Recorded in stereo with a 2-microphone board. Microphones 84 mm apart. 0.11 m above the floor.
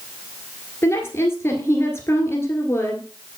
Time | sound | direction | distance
0.8 | a woman speaking | 30° left (ahead or behind) | 1.9 m